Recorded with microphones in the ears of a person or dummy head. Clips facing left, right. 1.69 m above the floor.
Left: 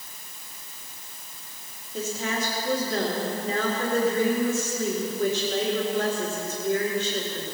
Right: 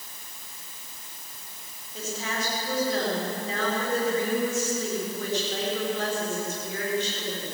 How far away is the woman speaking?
About 5 m.